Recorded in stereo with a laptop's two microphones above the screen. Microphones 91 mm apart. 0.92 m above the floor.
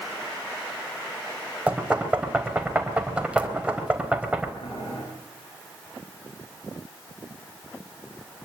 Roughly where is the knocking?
Centre.